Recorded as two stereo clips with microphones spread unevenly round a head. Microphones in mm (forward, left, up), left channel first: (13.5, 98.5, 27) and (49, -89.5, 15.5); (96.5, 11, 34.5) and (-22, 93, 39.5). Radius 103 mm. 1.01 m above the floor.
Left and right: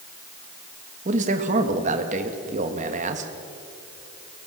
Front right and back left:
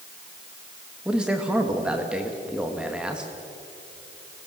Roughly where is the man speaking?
Behind right.